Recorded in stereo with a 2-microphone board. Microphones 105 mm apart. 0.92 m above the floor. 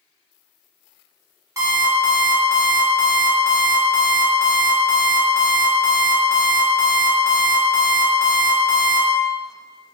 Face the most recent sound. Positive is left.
turn(degrees=-30)  # may be behind; listen again after turning